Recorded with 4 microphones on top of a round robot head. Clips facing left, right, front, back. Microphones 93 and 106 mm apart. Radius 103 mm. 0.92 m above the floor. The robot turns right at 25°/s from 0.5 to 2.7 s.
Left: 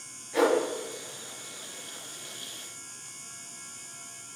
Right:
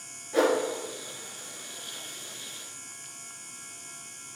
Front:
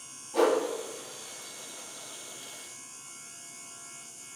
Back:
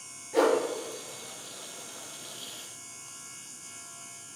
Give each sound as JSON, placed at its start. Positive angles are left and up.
{"t": 0.3, "sound": "a whoosh", "azimuth_deg": -145, "distance_m": 2.5}